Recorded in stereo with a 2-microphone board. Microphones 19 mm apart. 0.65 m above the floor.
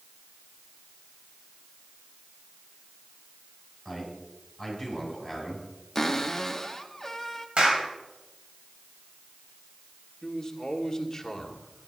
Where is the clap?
75° right (ahead or behind), 2.5 m.